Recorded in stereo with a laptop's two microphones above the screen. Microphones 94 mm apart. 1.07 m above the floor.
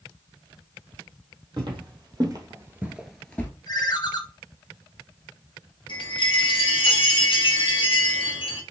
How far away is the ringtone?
About 0.7 m.